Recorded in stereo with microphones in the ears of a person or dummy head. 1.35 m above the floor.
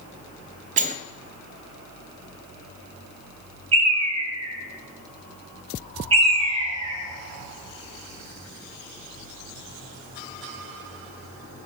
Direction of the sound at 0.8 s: 40° right (ahead or behind).